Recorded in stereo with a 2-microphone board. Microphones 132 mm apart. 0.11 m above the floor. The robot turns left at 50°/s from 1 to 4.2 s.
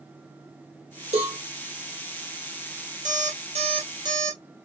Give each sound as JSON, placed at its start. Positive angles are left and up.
{"t": 1.1, "sound": "a cowbell", "side_deg": -60, "distance_m": 4.0}
{"t": 3.0, "sound": "an alarm clock", "azimuth_deg": -95, "distance_m": 1.8}